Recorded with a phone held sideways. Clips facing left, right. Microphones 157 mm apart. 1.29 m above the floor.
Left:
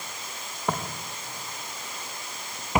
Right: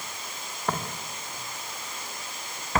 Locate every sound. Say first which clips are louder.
0.7 s footsteps: left 1 dB; 10° left (ahead or behind), 3.5 m; by 2.8 s 15° left (ahead or behind), 5 m